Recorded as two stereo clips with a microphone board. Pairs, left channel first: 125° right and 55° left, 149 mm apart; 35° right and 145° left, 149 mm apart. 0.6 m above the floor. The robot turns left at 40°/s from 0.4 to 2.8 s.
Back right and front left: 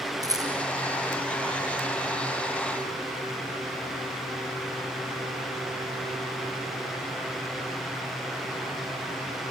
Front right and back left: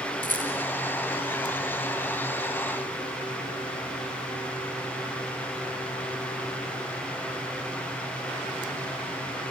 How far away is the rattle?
About 3.5 m.